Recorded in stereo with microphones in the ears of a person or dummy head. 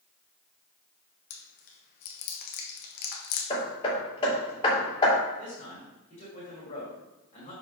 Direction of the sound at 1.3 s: 55° left (ahead or behind).